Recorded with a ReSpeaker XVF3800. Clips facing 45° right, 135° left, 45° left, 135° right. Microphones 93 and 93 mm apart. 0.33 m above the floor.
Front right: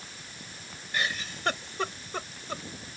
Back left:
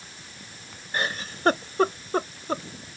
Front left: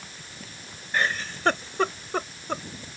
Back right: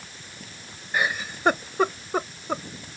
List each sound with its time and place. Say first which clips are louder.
0.9 s a giggle: back left 3 dB, even; 150° left